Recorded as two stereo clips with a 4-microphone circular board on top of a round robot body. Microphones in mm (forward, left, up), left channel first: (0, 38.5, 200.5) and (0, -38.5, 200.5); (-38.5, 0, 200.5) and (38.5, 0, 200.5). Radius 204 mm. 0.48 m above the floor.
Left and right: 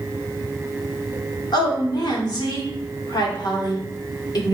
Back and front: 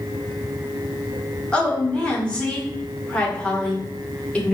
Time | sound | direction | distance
1.5 | a woman speaking | 105° left | 2 m